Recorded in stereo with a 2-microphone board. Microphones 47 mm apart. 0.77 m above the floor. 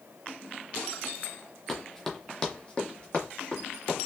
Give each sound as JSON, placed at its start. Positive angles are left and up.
{"t": 1.7, "sound": "running footsteps", "side_deg": 0, "distance_m": 1.0}